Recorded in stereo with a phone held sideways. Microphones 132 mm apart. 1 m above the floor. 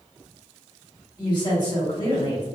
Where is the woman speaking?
35° left (ahead or behind), 1.8 m.